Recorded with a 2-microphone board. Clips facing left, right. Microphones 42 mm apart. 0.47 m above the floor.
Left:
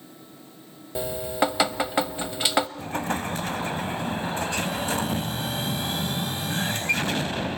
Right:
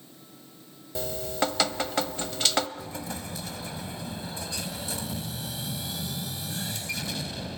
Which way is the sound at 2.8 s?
55° left (ahead or behind).